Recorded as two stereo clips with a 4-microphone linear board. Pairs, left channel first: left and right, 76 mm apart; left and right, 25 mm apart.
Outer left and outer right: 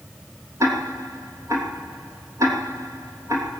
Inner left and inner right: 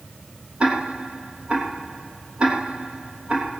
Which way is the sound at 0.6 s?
40° right (ahead or behind).